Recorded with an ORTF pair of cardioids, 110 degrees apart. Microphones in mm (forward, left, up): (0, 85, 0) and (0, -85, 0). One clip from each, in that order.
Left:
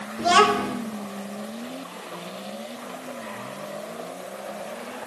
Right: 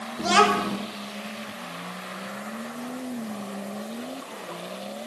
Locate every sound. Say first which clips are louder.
0.2 s a child speaking: left 2 dB; 5° right, 3 m